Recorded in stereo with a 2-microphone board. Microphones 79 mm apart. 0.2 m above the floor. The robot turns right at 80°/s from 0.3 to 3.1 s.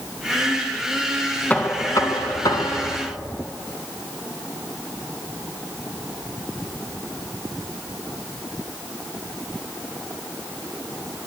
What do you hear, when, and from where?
1.5 s knocking: 30° left, 2.0 m; by 3.1 s 155° left, 2.0 m